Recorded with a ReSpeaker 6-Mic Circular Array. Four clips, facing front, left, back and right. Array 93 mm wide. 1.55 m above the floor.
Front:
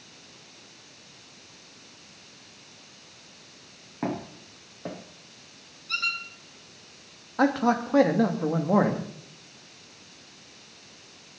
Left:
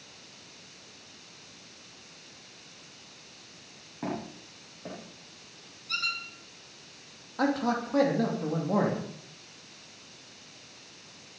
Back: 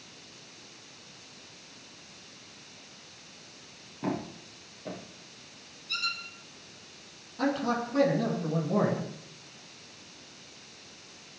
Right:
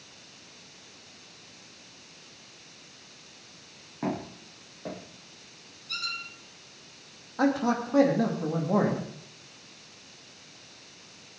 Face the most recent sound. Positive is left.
turn(degrees=-10)